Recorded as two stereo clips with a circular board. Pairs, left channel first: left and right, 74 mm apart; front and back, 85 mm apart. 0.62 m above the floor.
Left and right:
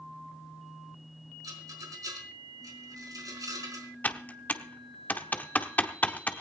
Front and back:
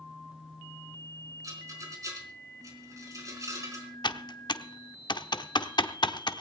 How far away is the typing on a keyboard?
About 1.0 m.